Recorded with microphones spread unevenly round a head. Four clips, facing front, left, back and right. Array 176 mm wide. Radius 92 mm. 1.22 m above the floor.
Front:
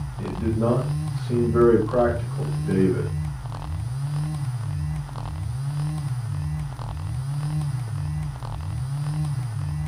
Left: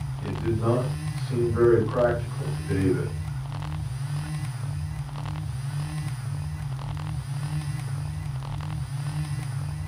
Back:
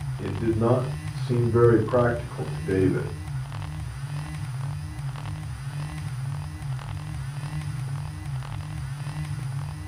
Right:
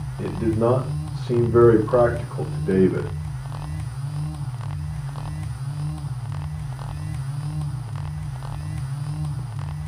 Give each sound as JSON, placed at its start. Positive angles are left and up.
{"t": 0.2, "sound": "a man speaking", "azimuth_deg": -90, "distance_m": 5.0}